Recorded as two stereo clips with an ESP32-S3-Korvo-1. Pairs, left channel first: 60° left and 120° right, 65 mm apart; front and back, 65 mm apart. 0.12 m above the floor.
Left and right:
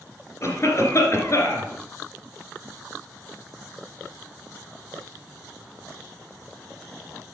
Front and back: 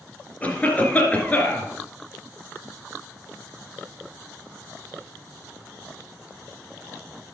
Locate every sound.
0.4 s a cough: 55° left, 2.5 m